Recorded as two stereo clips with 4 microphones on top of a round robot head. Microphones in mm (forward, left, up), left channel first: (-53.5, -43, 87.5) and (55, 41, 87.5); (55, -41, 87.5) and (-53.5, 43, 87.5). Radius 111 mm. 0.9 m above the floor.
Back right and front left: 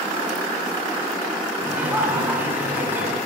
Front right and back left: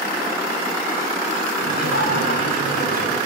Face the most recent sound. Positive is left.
turn(degrees=-40)